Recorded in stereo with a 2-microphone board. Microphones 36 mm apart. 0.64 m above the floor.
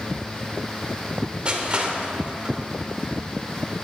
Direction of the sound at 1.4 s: 30° right (ahead or behind).